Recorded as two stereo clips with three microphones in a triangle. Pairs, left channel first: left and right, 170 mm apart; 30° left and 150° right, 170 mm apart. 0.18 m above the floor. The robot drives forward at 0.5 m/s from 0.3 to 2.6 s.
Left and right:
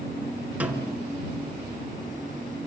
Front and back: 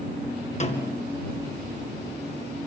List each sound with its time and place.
0.6 s a snare drum: 10° right, 2.5 m